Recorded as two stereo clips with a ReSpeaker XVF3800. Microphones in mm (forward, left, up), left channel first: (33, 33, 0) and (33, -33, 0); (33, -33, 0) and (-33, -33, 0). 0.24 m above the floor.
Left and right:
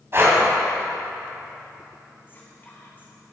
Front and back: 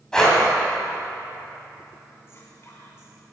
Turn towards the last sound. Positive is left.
turn(degrees=40)